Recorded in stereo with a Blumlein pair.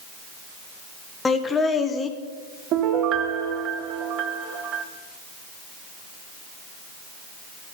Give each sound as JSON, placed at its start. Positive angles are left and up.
{"t": 1.2, "sound": "laughter", "azimuth_deg": 15, "distance_m": 1.1}
{"t": 2.7, "sound": "a piano", "azimuth_deg": -35, "distance_m": 0.8}